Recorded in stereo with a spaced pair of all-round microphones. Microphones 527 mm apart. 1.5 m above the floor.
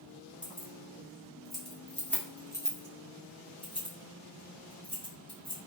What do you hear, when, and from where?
0.4 s keys jangling: centre (ahead or behind), 1.4 m; by 5.6 s 10° left (ahead or behind), 1.5 m